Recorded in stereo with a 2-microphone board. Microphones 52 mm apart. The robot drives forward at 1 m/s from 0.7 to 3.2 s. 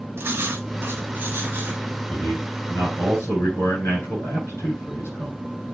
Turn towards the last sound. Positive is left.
turn(degrees=55)  # may be behind; listen again after turning